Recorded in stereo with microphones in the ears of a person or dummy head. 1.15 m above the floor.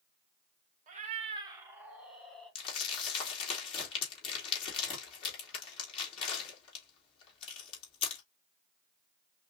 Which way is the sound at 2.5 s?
35° left (ahead or behind).